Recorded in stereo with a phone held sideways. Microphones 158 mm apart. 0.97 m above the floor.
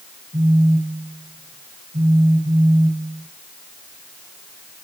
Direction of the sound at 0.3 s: 70° right (ahead or behind).